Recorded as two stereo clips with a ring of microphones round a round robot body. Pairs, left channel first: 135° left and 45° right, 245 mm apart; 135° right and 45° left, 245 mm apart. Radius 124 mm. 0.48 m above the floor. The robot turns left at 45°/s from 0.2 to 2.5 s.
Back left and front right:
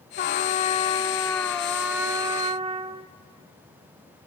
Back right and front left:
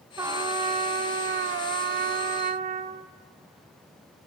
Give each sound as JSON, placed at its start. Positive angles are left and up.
{"t": 0.2, "sound": "a trumpet", "azimuth_deg": 115, "distance_m": 0.5}